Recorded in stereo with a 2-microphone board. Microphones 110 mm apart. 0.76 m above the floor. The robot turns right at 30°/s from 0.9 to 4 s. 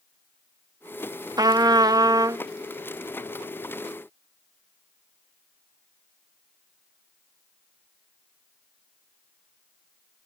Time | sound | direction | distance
1.4 | a trumpet | 95° right | ?